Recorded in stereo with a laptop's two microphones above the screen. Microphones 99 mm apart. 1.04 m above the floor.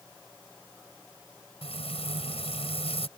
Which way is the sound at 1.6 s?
80° left.